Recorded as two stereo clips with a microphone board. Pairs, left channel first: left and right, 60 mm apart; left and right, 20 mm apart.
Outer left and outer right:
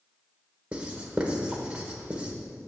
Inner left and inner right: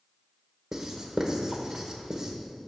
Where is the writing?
20° right (ahead or behind), 1.4 m.